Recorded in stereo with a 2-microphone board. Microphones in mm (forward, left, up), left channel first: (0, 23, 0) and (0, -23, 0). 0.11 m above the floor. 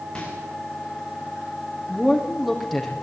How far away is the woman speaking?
About 5 m.